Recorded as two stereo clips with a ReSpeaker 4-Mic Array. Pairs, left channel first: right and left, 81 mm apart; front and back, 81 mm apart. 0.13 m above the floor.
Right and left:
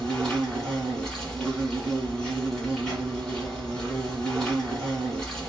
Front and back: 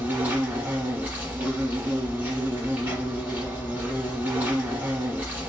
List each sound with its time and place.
0.0 s an insect: 155° right, 1.6 m